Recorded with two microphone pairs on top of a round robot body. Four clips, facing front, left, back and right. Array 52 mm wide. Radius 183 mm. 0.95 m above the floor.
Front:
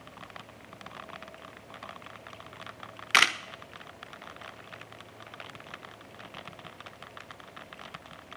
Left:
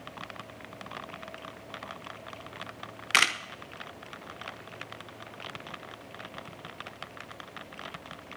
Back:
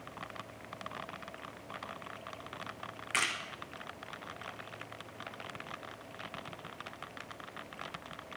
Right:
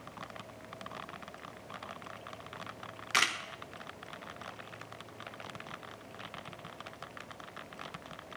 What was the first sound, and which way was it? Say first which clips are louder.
A camera shutter: left 5 dB, front 10 dB; 25° left.